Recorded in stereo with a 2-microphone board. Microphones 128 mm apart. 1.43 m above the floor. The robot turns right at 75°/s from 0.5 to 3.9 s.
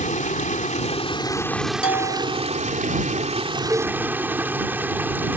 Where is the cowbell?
10° right (ahead or behind); by 4.0 s 25° right (ahead or behind).